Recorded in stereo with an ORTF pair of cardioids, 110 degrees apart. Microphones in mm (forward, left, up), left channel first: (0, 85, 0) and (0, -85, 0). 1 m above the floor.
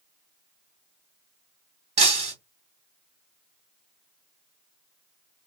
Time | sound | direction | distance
2.0 | breaking glass | 40° right | 1.8 m